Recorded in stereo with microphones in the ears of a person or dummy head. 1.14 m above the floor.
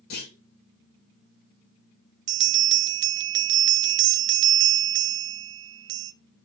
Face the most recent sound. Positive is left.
turn(degrees=-60)  # may be behind; listen again after turning